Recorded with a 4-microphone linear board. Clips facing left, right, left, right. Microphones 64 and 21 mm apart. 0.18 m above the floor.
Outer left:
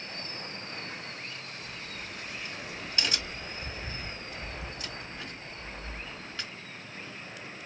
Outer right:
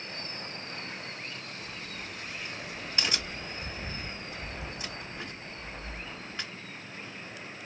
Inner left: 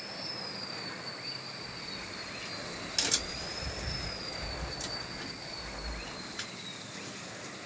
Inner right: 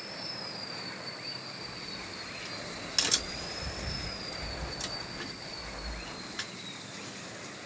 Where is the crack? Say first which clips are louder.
Even, even; 20° right (ahead or behind), 1.8 m.